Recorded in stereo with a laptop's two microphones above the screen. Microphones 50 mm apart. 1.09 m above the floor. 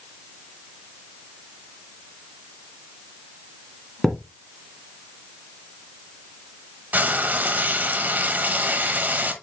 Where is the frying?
35° right (ahead or behind), 1.1 m.